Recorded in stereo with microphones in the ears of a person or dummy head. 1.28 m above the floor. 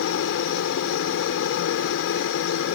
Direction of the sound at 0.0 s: 60° left (ahead or behind).